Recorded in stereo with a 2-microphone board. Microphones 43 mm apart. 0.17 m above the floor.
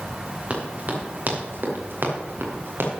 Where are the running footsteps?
35° right (ahead or behind), 5 m; by 2.9 s 75° right (ahead or behind), 5 m.